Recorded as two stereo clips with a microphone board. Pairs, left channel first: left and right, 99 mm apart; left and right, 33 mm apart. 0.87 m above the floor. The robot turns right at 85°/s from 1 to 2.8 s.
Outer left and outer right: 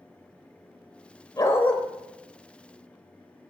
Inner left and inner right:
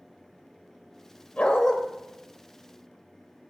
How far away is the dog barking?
About 1.0 m.